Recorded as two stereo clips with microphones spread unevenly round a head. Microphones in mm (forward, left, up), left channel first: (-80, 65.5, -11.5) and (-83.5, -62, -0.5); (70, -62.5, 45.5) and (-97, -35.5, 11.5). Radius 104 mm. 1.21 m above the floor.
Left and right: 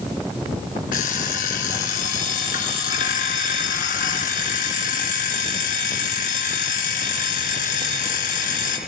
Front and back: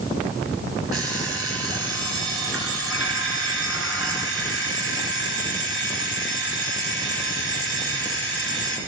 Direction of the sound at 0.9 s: 95° left.